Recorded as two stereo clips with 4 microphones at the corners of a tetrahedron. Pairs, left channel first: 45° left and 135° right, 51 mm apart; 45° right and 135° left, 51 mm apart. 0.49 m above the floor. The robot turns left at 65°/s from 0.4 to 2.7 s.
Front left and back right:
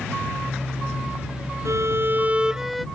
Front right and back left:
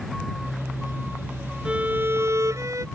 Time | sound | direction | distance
1.6 | a violin | 150° right | ?